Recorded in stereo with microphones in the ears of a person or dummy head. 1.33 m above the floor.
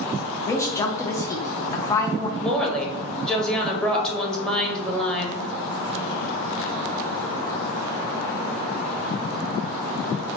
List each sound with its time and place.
0.5 s a woman speaking: 20° left (ahead or behind), 0.6 m
2.4 s a woman speaking: 5° left (ahead or behind), 1.0 m